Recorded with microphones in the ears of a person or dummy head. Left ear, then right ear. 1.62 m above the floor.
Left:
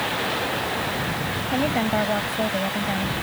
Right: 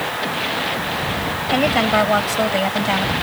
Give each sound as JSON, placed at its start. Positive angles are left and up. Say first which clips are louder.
{"t": 1.5, "sound": "a woman speaking", "louder": "right 7 dB", "side_deg": -55}